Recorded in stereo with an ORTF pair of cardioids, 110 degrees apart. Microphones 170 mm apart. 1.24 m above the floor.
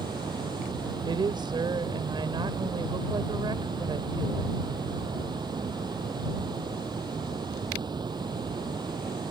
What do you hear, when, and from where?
0.0 s running water: 25° right
1.0 s a woman speaking: 25° right